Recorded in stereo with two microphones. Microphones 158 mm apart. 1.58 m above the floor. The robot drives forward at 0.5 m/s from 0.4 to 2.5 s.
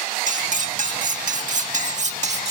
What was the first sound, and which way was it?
Cutlery clinking, 55° right (ahead or behind).